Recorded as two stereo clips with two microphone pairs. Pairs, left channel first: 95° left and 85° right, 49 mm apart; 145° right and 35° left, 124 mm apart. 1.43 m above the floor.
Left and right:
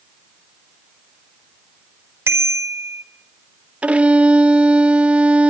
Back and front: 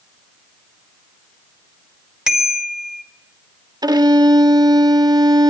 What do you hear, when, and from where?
2.3 s a bicycle bell: 50° right, 4.5 m
3.8 s a violin: 20° right, 1.7 m